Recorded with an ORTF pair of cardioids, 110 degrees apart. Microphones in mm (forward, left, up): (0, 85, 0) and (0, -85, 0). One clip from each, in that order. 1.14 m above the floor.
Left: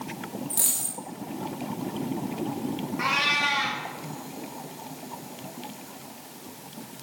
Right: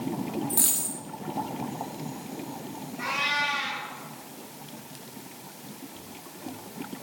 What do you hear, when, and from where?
0.5 s a dropped coin: 10° right, 1.7 m
3.0 s a cat meowing: 50° left, 2.5 m